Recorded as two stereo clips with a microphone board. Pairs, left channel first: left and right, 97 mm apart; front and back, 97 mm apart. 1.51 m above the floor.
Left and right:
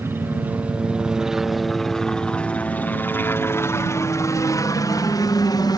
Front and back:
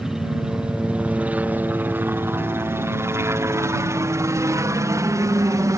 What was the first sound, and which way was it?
A helicopter, 100° right.